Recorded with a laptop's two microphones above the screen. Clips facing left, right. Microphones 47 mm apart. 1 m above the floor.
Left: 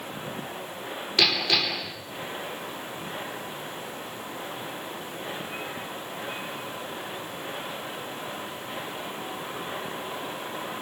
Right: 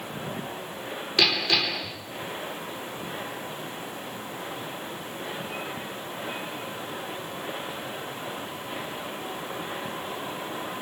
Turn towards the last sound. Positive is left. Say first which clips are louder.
# even
turn(degrees=5)  # may be behind; listen again after turning